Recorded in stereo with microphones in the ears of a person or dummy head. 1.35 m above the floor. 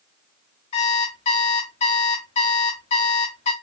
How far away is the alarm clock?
About 0.9 m.